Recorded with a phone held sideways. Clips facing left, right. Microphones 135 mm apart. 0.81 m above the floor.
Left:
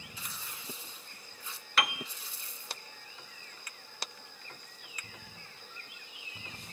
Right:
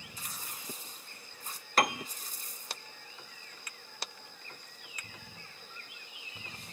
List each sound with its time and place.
0.2 s tearing paper: 45° right (ahead or behind), 1.6 m
1.8 s a piano: 40° right (ahead or behind), 0.5 m